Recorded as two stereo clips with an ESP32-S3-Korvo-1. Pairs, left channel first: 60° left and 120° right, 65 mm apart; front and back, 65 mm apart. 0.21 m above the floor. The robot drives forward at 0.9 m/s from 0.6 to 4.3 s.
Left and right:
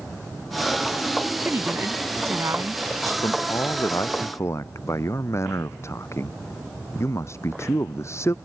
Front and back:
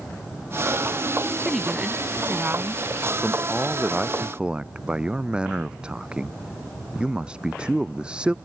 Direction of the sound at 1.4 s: 90° right.